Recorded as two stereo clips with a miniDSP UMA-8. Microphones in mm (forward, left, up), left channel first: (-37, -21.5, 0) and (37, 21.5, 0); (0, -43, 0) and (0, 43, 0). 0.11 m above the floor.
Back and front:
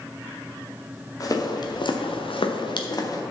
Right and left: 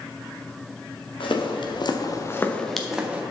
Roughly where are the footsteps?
Right.